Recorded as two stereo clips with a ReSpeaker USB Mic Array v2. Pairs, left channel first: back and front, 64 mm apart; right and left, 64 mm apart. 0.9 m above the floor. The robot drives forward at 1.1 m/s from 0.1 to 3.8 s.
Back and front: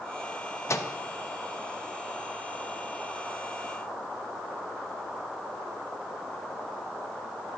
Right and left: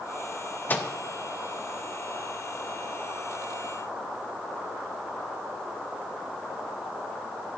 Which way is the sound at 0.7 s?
145° right.